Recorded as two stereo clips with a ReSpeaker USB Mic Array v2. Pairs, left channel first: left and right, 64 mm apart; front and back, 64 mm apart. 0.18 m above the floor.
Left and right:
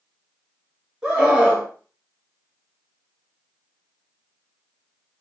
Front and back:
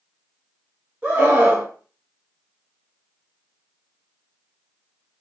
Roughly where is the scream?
Behind right.